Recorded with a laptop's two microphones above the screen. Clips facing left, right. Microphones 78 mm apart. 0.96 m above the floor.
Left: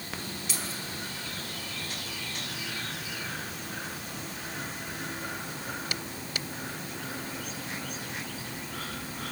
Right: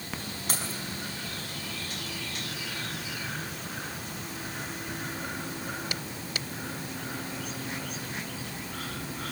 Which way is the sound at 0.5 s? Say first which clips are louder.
Right 4 dB; 45° right (ahead or behind).